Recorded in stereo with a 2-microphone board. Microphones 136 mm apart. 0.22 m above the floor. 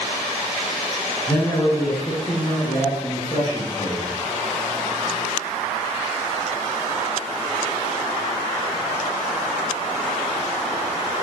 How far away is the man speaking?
About 2.5 m.